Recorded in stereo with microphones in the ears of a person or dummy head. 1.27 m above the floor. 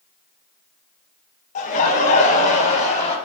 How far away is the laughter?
About 1.6 m.